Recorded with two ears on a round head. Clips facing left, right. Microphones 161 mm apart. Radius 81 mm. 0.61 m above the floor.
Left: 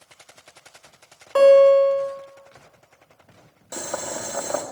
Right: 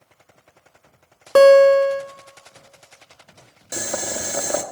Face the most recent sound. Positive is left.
turn(degrees=-20)  # may be behind; listen again after turning